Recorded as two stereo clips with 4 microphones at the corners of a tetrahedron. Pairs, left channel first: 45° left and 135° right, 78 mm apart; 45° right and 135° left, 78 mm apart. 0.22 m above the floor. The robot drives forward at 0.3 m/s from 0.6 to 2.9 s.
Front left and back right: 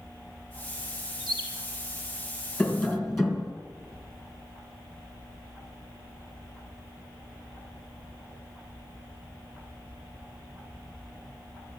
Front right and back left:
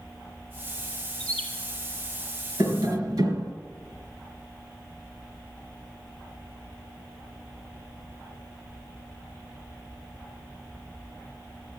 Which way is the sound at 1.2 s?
140° right.